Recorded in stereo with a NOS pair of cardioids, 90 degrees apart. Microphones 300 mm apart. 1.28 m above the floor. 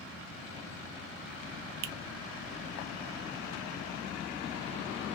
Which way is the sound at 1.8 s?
60° right.